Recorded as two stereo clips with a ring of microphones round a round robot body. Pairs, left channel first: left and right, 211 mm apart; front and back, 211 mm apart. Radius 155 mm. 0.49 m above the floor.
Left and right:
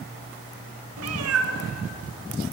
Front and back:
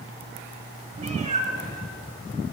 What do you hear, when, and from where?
1.0 s a cat meowing: 110° right, 0.8 m